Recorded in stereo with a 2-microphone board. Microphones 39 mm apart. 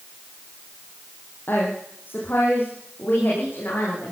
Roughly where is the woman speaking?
Left.